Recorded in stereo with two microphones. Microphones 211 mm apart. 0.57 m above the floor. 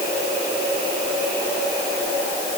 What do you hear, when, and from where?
Only background noise.